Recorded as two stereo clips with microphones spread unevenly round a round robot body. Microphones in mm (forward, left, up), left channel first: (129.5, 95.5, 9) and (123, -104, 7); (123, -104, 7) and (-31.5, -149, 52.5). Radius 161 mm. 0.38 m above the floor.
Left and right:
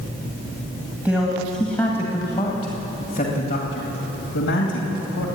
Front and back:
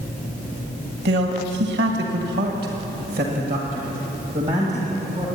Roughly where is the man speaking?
Behind.